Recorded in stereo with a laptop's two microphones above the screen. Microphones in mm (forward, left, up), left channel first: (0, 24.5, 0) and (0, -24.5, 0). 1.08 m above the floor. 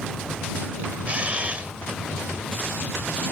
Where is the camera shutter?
25° right (ahead or behind).